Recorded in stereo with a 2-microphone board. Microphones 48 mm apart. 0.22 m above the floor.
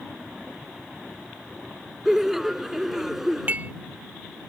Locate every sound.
2.0 s laughter: 5° right (ahead or behind)
3.5 s dishes clattering: 35° right (ahead or behind)